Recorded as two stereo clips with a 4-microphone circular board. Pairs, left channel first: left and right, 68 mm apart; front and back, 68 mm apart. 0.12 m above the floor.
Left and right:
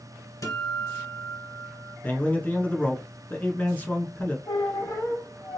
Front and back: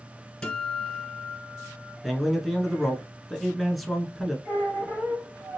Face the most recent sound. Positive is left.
turn(degrees=120)